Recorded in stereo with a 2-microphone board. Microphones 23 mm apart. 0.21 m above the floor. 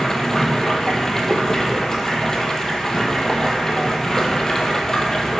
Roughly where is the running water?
Left.